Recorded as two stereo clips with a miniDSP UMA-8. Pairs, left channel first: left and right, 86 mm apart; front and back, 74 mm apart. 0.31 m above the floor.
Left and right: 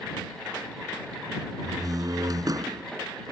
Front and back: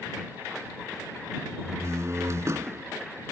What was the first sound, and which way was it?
A door slam, 130° right.